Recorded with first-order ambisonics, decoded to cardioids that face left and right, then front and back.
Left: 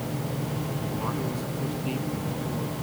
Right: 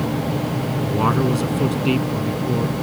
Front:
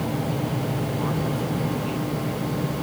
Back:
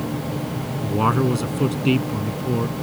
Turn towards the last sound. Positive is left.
turn(degrees=-135)